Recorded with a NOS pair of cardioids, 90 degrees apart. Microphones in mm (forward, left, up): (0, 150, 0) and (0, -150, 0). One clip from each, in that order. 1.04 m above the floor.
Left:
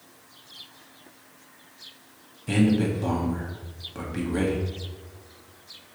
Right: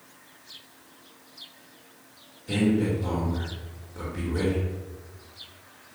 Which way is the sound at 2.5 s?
70° left.